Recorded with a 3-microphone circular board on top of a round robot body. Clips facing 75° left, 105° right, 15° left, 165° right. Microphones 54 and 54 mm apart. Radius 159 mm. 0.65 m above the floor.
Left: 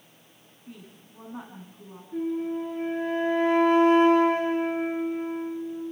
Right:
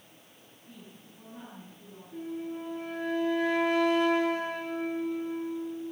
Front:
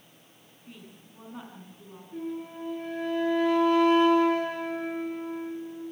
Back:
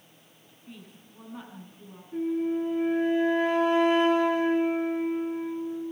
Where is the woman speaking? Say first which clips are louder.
Left 4 dB, back 1 dB; 100° left, 8 m.